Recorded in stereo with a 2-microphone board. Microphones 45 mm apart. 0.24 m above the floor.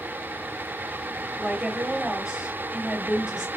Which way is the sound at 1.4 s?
15° right (ahead or behind).